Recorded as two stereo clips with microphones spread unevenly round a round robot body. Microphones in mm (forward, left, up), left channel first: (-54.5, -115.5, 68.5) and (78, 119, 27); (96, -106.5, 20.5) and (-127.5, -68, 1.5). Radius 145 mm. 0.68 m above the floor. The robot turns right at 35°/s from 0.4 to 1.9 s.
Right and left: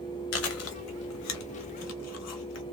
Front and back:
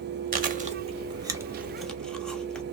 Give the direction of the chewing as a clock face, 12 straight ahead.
5 o'clock.